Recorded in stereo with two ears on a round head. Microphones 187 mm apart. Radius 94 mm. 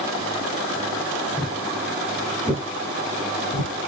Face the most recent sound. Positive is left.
turn(degrees=-50)  # may be behind; listen again after turning